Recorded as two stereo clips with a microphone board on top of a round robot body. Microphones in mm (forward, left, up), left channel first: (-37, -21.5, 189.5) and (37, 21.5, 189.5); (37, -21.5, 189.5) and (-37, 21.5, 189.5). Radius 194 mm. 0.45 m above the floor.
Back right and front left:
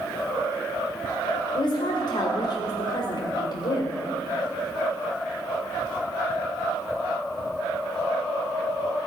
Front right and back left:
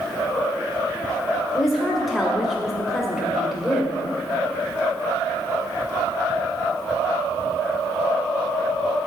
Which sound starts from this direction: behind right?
A woman speaking, at 1.5 s.